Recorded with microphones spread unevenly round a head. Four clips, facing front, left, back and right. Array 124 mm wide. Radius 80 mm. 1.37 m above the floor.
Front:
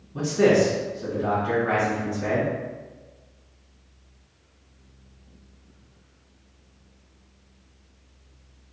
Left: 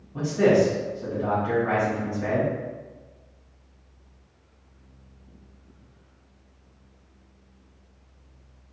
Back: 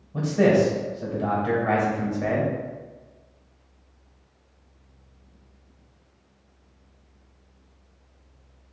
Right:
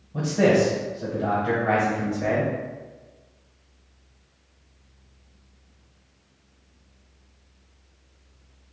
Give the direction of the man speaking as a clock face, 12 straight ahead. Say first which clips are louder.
Even, even; 4 o'clock.